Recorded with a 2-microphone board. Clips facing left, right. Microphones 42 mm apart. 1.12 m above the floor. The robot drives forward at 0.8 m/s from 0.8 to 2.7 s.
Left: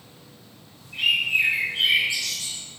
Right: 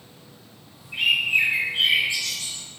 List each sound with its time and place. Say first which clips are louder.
0.9 s a bird: right 1 dB; 60° right (ahead or behind), 1.1 m; by 2.6 s 25° right (ahead or behind), 2 m